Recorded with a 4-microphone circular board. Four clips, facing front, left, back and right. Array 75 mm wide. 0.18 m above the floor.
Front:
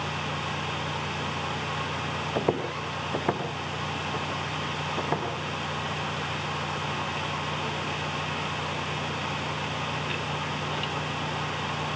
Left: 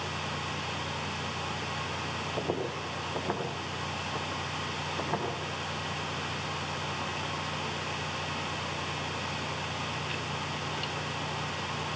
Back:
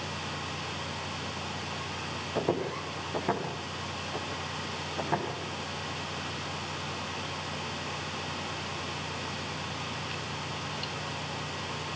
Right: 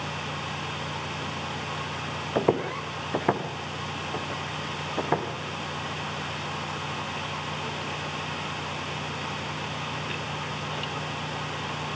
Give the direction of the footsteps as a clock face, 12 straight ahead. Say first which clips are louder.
Right 10 dB, front 2 dB; 2 o'clock.